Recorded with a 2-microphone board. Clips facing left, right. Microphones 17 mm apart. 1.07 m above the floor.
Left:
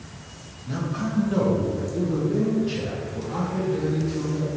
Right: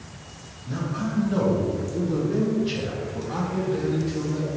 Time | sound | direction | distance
0.7 | a man speaking | 25° left (ahead or behind) | 1.0 m